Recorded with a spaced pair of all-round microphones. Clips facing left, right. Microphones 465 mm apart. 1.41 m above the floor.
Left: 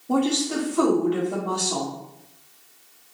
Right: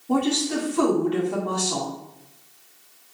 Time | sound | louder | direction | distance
0.1 | a woman speaking | even | 10° right (ahead or behind) | 0.9 m